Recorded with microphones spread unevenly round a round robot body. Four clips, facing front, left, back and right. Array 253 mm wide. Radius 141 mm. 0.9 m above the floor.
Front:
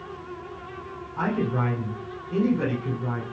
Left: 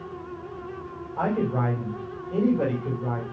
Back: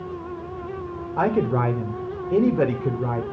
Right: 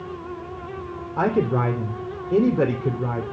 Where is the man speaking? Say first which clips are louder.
Right 4 dB, back 5 dB; 135° right, 2.5 m.